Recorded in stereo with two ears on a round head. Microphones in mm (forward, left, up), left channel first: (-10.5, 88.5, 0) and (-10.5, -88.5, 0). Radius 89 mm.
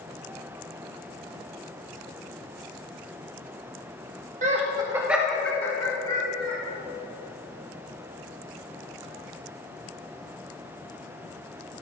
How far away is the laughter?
About 1.8 m.